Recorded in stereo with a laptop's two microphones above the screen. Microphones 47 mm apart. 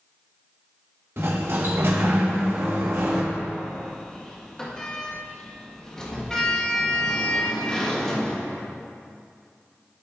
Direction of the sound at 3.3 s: 15° left (ahead or behind).